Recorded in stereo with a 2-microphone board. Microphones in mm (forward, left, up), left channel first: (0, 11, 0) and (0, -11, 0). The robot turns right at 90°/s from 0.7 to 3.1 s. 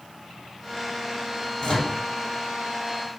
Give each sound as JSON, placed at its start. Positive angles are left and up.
{"t": 1.6, "sound": "a microwave", "side_deg": 25, "distance_m": 1.1}